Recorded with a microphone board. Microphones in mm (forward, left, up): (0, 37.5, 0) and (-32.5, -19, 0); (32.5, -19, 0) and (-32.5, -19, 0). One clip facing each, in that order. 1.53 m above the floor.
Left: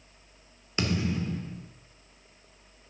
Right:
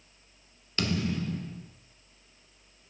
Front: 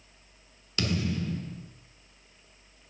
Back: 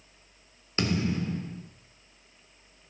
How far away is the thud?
About 1.7 m.